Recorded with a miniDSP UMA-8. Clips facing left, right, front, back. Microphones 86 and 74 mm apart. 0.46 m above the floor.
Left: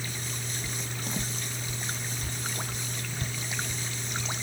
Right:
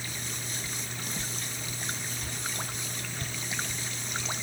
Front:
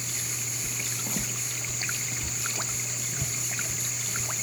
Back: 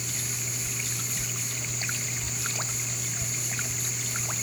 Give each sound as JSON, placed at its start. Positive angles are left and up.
{"t": 0.6, "sound": "footsteps", "azimuth_deg": 35}